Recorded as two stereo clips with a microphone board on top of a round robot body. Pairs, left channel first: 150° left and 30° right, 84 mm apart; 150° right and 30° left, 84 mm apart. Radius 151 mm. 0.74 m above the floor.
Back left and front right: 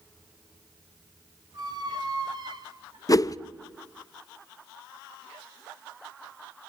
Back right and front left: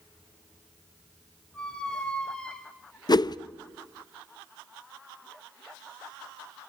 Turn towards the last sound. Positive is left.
turn(degrees=-175)